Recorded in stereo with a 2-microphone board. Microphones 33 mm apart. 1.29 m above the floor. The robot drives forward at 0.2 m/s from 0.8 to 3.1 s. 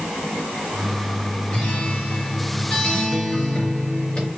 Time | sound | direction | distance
1.5 | a guitar | 35° left (ahead or behind) | 1.9 m